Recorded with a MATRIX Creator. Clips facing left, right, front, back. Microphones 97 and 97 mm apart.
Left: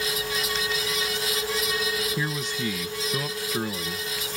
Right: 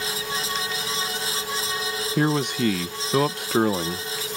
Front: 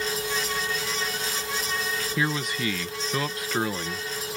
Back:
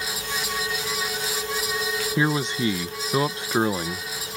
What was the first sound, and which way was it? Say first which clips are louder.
A man speaking: right 8 dB, back 5 dB; 115° right.